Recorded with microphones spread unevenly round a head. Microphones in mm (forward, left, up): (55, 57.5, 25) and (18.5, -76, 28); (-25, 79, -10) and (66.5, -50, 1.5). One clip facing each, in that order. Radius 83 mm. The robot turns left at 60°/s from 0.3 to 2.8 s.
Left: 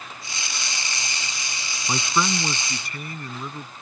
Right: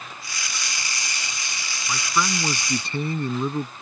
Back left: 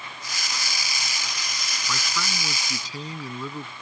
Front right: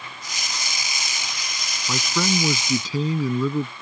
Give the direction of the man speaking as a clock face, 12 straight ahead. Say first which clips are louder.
Left 1 dB, front right 9 dB; 12 o'clock.